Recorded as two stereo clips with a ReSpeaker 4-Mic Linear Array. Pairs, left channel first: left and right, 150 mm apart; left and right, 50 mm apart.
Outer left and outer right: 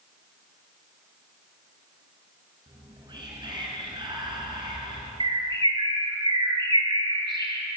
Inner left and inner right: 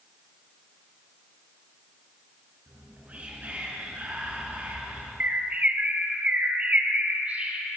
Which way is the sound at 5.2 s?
35° right (ahead or behind).